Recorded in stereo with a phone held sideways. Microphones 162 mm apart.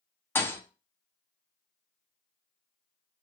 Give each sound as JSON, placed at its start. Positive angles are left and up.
{"t": 0.3, "sound": "a thud", "side_deg": 15, "distance_m": 0.6}